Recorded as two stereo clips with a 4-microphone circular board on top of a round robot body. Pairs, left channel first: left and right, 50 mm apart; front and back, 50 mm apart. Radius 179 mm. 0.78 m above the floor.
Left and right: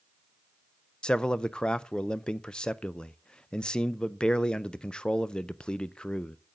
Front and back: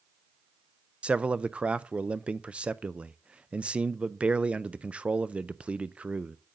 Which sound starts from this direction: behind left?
A man speaking, at 1.0 s.